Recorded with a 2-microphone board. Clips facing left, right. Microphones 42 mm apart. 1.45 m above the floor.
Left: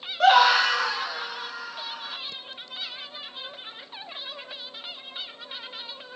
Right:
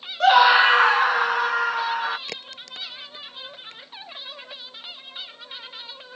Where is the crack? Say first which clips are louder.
Right 3 dB; 70° right (ahead or behind).